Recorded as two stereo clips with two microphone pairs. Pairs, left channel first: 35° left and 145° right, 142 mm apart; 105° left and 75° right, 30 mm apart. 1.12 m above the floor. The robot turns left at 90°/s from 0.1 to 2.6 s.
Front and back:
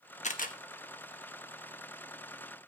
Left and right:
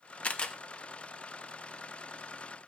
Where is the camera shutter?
65° left, 1.1 m; by 0.6 s 40° left, 1.1 m.